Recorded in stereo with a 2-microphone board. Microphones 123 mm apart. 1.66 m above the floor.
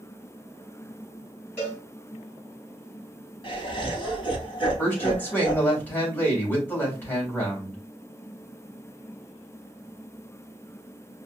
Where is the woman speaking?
15° left (ahead or behind), 2.5 m.